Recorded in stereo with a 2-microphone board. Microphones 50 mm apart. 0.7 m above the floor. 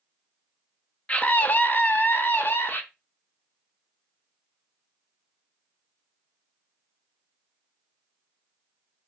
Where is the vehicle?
No vehicle in this recording.